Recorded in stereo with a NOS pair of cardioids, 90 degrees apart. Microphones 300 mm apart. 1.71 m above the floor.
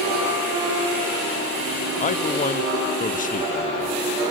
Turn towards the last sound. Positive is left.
turn(degrees=25)